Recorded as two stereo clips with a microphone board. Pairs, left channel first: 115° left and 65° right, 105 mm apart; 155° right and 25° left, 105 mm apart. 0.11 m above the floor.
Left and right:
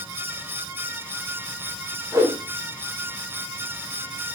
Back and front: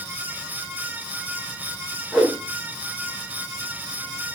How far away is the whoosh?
About 0.7 m.